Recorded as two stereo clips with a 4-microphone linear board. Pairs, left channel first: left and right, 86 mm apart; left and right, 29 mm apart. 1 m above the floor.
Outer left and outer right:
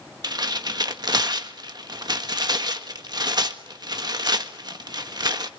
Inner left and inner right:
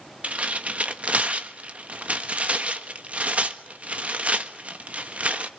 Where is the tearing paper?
50° right (ahead or behind), 1.4 m.